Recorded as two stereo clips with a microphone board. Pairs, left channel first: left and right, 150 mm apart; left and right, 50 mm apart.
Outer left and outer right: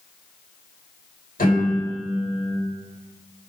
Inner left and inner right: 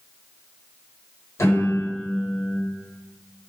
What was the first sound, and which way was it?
A piano, 80° left.